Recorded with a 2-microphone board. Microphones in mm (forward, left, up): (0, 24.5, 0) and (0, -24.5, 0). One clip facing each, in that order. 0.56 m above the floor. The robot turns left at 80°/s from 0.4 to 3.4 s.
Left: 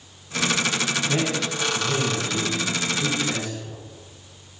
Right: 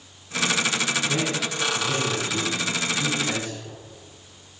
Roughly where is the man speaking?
Left.